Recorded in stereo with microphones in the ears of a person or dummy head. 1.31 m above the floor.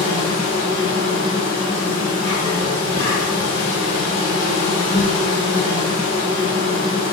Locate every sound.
0.0 s an insect: 40° left (ahead or behind), 1.2 m